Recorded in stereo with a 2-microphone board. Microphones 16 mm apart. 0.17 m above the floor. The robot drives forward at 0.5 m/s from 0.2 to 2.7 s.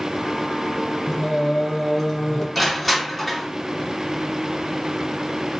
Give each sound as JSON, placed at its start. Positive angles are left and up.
{"t": 1.1, "sound": "singing", "side_deg": 10, "distance_m": 2.5}
{"t": 2.5, "sound": "crushing", "side_deg": -5, "distance_m": 1.6}